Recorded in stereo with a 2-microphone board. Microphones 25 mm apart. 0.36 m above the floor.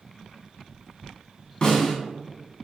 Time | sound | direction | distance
1.6 | a snare drum | 40° left (ahead or behind) | 1.4 m